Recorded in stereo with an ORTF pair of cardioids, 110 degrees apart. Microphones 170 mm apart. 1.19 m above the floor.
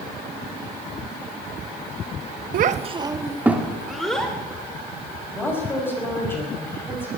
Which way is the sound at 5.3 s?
15° left.